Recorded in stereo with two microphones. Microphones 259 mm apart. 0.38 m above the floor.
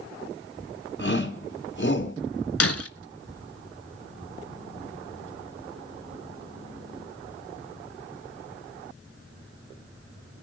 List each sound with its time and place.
1.0 s a shout: 45° left (ahead or behind), 4.5 m
2.6 s breaking glass: 65° left (ahead or behind), 0.8 m